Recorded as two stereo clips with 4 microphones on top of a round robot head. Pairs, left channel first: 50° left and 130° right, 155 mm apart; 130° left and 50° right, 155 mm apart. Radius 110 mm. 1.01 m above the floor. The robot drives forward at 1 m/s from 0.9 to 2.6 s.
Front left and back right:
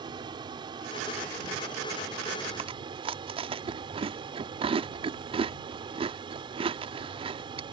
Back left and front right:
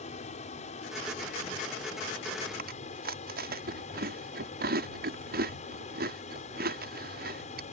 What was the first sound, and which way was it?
An aircraft, 170° left.